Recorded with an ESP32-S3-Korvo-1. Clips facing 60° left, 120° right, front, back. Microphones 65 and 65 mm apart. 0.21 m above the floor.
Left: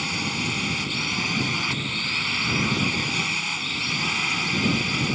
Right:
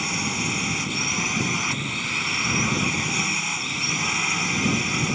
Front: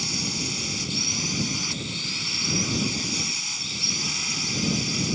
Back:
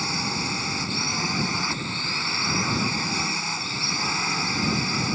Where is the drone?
160° left.